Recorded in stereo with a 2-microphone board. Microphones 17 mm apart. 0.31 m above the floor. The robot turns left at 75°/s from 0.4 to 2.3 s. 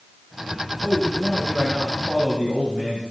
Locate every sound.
0.8 s a man speaking: 30° right, 4.5 m; by 3.0 s 145° right, 4.5 m